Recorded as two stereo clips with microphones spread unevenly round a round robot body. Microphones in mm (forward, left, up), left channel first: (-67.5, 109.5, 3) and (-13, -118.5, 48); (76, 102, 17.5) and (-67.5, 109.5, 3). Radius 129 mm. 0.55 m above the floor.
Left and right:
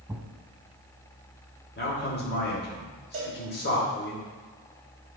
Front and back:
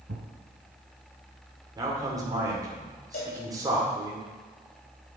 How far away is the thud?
About 1.4 m.